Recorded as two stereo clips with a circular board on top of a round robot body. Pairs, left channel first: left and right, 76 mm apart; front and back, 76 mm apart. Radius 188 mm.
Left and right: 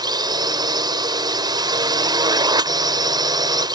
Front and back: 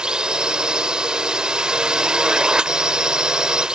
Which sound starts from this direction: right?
A drone, at 0.0 s.